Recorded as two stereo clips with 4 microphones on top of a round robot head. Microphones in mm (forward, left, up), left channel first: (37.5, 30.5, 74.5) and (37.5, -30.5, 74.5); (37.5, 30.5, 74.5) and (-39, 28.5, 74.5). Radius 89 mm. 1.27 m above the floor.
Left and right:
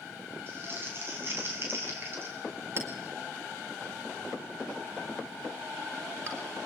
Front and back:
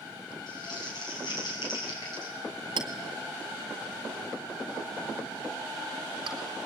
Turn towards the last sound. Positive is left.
turn(degrees=-145)